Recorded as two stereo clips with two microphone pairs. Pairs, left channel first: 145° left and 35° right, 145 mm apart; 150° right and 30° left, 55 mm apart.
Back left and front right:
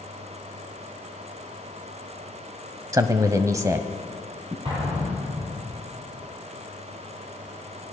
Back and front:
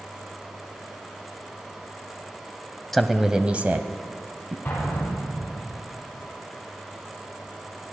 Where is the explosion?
85° right, 8.5 m.